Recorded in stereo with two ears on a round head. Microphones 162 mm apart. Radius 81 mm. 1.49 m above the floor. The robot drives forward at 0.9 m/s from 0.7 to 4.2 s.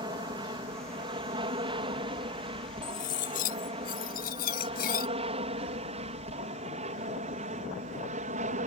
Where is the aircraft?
25° right (ahead or behind); by 8.7 s 45° right (ahead or behind).